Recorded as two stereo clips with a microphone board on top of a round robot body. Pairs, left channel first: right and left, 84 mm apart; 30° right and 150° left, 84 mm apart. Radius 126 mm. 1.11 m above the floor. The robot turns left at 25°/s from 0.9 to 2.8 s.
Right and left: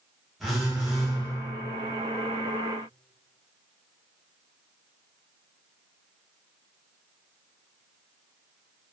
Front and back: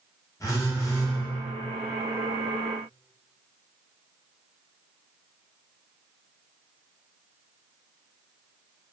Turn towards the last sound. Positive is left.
turn(degrees=-45)